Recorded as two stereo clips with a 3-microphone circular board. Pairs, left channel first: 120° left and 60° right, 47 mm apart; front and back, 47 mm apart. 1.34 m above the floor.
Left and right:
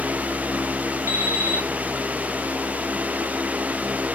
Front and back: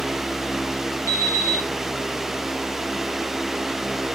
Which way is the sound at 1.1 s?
30° right.